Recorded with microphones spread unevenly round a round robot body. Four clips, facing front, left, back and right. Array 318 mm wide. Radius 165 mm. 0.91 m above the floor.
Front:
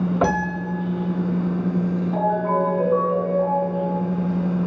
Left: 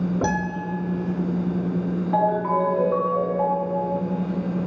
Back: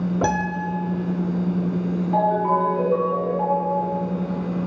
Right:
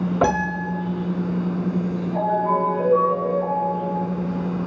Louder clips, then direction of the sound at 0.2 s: Right 3 dB, even; 175° right.